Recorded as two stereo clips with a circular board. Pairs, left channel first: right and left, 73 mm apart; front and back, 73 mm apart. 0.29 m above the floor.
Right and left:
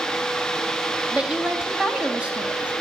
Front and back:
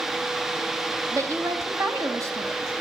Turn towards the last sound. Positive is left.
turn(degrees=160)